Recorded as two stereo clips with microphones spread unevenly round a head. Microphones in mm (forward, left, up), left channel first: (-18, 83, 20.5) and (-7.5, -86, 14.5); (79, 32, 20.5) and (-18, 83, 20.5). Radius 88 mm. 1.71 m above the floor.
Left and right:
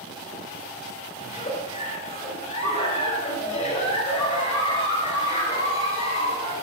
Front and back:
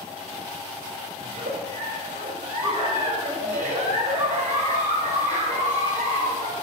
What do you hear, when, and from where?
1.2 s a giggle: 150° left, 6 m